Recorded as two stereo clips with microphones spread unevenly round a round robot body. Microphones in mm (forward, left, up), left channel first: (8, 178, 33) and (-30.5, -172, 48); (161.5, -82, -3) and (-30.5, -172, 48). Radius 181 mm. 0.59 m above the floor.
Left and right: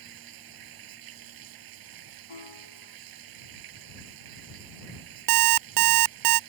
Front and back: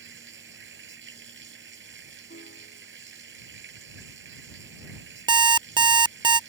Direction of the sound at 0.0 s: 125° right.